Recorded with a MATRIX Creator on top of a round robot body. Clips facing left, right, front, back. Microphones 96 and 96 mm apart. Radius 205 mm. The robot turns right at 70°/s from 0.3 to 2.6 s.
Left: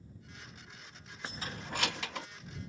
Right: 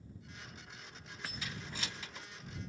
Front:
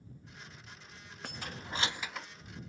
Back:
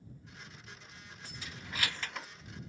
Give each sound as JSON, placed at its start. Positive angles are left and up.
{"t": 1.2, "sound": "keys jangling", "azimuth_deg": 25}